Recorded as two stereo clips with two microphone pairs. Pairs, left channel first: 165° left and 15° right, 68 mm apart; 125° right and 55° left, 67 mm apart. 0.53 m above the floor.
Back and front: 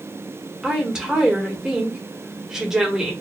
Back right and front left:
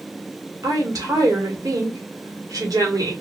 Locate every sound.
0.6 s a woman speaking: 65° left, 1.7 m